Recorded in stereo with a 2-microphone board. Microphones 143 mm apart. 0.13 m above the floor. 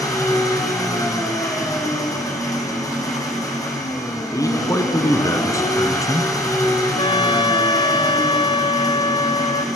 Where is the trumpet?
35° left (ahead or behind), 1.2 m.